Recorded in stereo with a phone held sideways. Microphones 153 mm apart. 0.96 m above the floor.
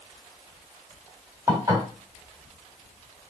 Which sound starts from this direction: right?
Dishes clattering, at 1.5 s.